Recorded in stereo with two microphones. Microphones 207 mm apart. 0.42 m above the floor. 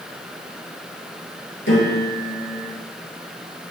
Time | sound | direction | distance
1.7 | a piano | 75° left (ahead or behind) | 7 m